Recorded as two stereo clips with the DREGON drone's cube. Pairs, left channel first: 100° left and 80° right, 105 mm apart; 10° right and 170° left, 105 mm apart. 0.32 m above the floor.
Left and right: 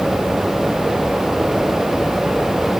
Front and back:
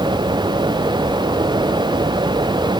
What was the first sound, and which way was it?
Only background noise.